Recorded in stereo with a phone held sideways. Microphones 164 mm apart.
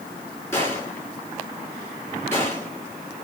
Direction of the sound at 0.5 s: 15° left (ahead or behind).